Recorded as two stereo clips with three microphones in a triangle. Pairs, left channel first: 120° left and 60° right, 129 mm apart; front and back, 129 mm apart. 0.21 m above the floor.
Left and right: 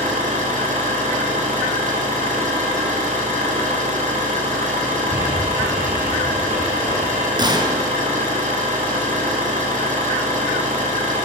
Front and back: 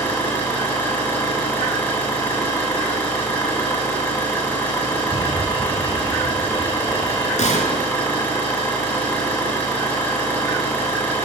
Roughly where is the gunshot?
Ahead.